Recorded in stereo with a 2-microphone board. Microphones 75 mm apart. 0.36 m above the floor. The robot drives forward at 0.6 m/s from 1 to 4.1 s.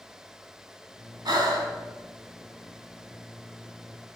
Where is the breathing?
65° right (ahead or behind), 2 m; by 1.7 s 60° right (ahead or behind), 2.5 m.